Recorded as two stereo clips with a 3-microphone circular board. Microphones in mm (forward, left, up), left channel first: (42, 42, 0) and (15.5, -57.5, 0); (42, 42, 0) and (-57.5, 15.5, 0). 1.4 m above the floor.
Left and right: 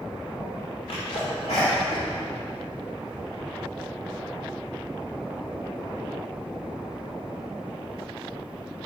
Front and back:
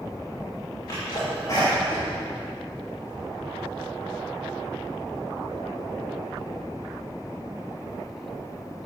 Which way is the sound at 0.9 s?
70° left.